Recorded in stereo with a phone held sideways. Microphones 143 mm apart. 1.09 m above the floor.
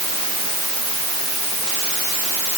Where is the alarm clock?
No alarm clock in this recording.